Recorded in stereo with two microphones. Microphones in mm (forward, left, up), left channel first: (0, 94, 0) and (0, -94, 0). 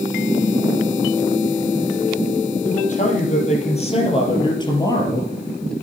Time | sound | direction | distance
2.6 | a man speaking | 45° left (ahead or behind) | 5.5 m